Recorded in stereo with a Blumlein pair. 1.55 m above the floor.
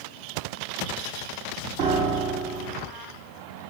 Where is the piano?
40° right, 0.9 m.